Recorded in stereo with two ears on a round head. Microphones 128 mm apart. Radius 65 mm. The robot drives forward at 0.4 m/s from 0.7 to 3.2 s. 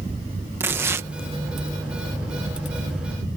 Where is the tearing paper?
15° right (ahead or behind).